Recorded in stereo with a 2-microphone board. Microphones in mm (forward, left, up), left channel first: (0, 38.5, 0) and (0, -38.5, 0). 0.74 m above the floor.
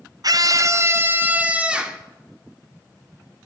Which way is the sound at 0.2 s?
55° right (ahead or behind).